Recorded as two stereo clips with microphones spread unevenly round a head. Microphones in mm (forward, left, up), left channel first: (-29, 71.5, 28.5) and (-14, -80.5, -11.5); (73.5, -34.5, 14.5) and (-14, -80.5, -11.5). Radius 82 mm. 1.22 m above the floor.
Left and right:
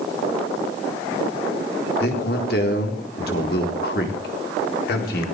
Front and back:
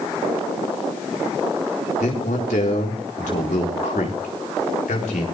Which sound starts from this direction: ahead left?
A man speaking, at 2.0 s.